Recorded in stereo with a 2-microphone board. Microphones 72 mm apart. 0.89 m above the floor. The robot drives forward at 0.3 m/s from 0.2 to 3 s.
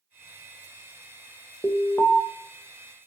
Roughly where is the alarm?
Left.